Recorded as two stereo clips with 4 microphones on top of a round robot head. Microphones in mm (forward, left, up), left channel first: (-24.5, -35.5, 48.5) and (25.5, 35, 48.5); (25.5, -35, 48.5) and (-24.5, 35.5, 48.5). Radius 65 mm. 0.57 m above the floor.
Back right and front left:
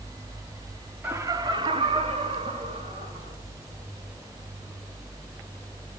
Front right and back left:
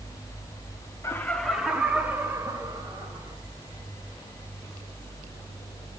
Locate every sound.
1.0 s laughter: 5° right, 1.1 m; by 3.4 s 65° left, 4 m